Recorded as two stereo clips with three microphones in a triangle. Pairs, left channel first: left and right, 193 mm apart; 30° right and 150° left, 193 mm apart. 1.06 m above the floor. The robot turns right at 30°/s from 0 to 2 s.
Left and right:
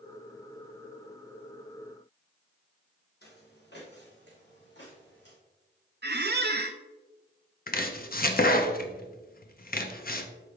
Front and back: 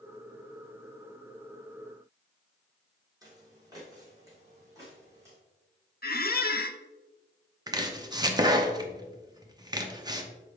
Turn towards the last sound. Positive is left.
turn(degrees=90)